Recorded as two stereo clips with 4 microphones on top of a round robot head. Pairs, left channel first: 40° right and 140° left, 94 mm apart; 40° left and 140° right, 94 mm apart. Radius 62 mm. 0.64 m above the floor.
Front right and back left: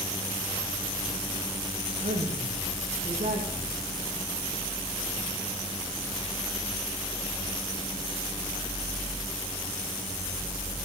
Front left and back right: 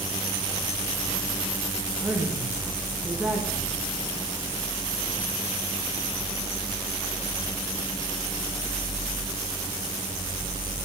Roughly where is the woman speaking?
Behind left.